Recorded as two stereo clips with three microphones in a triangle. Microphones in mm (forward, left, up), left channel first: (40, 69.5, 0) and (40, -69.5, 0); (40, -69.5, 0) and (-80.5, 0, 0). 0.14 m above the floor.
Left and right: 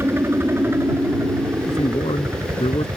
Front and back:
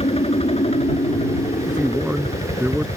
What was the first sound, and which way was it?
A helicopter, 25° right.